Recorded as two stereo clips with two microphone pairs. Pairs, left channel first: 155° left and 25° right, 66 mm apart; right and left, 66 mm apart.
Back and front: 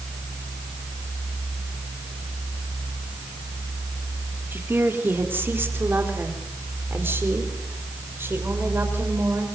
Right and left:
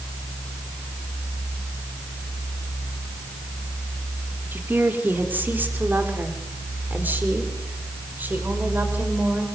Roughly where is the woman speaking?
Ahead left.